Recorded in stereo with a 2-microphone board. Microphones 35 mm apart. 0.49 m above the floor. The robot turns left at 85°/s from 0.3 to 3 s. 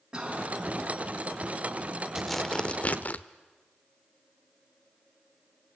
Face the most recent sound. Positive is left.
turn(degrees=115)